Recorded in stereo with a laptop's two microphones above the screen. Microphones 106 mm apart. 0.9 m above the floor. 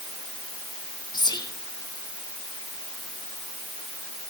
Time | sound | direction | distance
1.1 | whispering | 45° left (ahead or behind) | 0.7 m